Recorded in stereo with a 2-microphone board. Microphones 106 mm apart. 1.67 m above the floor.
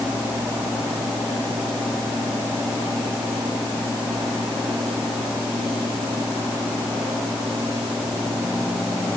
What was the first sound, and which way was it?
Only background noise.